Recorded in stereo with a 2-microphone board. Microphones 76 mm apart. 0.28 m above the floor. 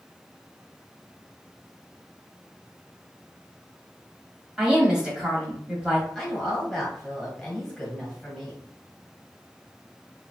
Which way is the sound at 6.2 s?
5° left (ahead or behind).